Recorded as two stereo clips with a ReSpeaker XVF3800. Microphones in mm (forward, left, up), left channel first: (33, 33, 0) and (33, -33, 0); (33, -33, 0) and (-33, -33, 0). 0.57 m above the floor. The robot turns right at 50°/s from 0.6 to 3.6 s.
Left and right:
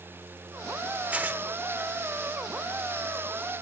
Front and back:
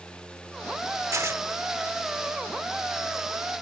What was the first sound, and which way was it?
Tearing paper, 155° right.